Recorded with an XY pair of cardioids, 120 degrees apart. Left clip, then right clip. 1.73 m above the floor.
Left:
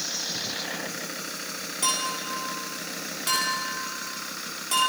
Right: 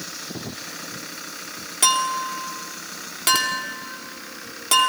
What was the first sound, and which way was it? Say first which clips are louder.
A clink: right 7 dB; 60° right.